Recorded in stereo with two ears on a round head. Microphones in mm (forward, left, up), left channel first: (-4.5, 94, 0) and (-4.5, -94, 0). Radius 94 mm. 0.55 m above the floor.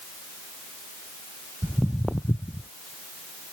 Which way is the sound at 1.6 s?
5° right (ahead or behind).